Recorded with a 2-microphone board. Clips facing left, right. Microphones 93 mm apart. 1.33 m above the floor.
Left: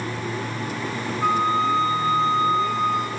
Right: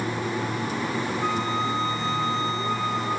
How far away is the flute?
About 3 m.